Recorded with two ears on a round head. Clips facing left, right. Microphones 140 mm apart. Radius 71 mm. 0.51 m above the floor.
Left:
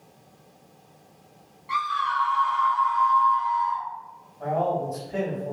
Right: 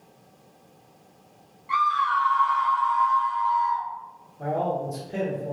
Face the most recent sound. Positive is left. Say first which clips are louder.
# left 1 dB
turn(degrees=-30)  # may be behind; listen again after turning